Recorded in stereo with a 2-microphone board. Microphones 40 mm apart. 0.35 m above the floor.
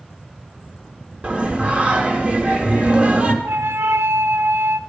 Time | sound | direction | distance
1.2 | singing | 25° right (ahead or behind) | 1.4 m
3.4 | a flute | 85° right | 0.7 m